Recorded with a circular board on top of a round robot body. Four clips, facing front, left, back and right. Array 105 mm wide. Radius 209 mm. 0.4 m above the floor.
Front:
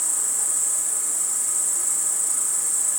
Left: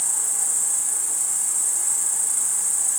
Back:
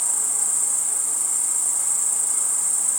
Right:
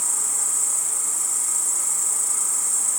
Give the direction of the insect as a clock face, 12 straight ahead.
3 o'clock.